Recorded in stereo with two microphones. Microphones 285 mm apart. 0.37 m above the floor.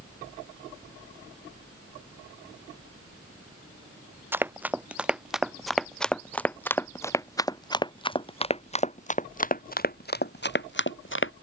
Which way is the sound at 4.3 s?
5° right (ahead or behind).